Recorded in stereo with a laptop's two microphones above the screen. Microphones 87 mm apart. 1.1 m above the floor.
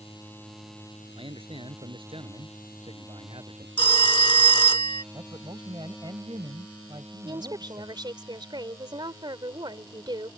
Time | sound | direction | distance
1.1 | a man speaking | 90° right | ?
3.8 | a phone ringing | 75° left (ahead or behind) | ?
5.1 | a man speaking | 55° right (ahead or behind) | ?
7.2 | a woman speaking | 55° right (ahead or behind) | ?